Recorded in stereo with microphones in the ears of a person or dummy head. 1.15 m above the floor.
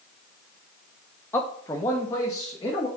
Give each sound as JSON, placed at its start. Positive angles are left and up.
{"t": 1.3, "sound": "a man speaking", "side_deg": 10, "distance_m": 0.5}